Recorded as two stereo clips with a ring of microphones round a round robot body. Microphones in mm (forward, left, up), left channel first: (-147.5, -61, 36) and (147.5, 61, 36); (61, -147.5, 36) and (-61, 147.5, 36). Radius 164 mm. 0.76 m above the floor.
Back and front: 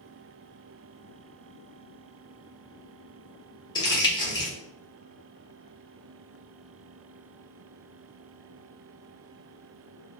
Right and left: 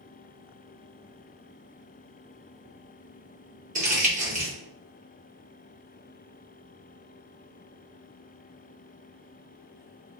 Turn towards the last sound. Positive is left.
turn(degrees=140)